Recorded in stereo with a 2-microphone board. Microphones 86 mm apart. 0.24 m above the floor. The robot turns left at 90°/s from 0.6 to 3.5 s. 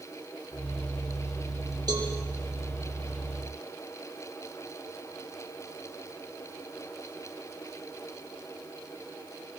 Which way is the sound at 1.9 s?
55° right (ahead or behind).